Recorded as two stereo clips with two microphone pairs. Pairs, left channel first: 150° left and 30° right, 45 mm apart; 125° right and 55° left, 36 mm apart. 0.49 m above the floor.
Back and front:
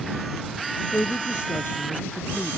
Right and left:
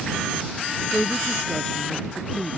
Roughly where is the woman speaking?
Behind.